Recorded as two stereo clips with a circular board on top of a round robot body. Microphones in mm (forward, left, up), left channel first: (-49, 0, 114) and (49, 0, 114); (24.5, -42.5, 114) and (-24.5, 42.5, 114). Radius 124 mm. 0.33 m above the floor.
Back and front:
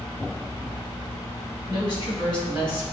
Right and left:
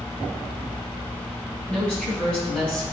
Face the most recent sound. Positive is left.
turn(degrees=-135)